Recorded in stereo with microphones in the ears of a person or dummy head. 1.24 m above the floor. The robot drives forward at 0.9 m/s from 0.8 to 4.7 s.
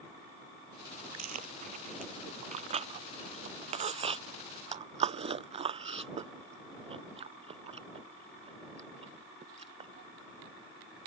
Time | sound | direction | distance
1.2 | chewing | 45° right (ahead or behind) | ?